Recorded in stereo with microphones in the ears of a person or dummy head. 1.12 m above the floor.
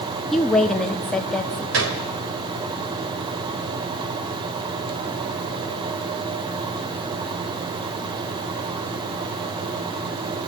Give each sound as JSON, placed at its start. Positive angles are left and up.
{"t": 0.3, "sound": "a woman speaking", "side_deg": 5, "distance_m": 1.0}
{"t": 1.7, "sound": "a gunshot", "side_deg": -55, "distance_m": 1.7}